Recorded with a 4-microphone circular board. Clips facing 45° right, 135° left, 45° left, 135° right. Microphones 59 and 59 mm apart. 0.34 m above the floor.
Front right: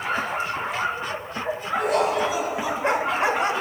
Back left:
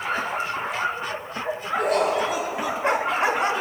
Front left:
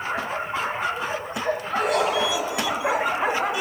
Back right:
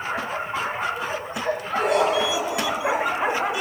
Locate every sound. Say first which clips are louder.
1.8 s laughter: even, back right 2 dB; 170° left, 4.5 m